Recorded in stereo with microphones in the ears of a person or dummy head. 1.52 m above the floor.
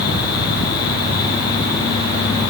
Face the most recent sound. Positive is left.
No sound to turn to.